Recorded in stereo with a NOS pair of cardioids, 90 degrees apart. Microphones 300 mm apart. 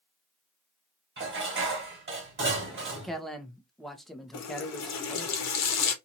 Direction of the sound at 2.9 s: Straight ahead.